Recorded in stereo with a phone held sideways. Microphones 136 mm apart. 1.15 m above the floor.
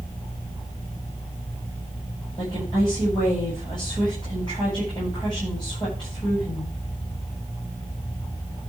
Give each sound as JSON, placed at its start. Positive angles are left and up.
{"t": 2.4, "sound": "a woman speaking", "side_deg": 35, "distance_m": 8.0}